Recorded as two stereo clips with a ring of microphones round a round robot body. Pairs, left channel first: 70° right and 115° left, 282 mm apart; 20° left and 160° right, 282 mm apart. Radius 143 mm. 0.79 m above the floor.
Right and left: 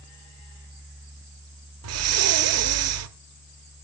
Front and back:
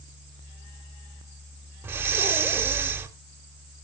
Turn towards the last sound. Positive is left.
turn(degrees=120)